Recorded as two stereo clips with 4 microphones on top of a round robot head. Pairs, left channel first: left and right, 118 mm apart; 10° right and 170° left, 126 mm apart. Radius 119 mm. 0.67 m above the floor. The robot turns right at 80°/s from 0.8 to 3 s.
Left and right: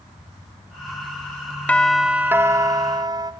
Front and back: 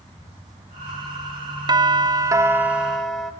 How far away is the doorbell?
About 1.2 m.